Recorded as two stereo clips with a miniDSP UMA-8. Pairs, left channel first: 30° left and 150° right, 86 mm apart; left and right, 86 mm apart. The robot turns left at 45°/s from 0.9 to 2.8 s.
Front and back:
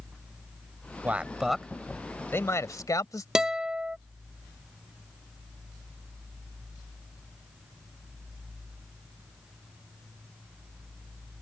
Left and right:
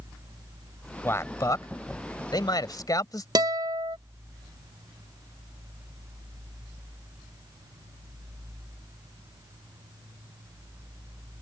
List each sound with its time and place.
1.0 s a man speaking: 145° left; by 3.2 s 65° left
3.4 s a guitar: 70° right